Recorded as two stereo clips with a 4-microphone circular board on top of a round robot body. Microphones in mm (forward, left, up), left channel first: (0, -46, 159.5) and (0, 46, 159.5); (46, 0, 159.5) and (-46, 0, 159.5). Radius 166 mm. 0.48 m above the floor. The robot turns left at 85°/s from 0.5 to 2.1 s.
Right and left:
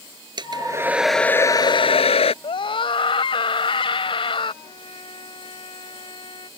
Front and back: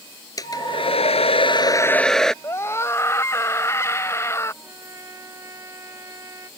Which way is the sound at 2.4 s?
65° right.